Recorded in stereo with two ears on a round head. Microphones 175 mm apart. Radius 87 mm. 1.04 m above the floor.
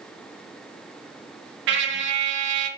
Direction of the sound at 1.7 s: 60° right (ahead or behind).